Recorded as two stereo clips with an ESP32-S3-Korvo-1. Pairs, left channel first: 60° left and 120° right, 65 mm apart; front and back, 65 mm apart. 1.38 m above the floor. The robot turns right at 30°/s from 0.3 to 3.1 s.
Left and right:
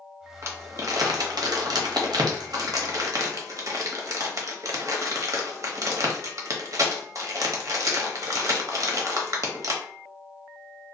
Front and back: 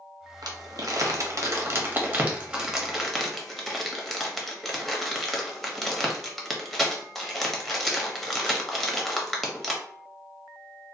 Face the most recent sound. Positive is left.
turn(degrees=-90)